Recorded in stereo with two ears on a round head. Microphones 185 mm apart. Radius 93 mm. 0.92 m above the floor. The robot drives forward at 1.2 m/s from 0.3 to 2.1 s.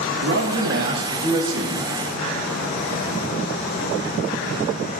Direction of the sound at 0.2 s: 70° right (ahead or behind).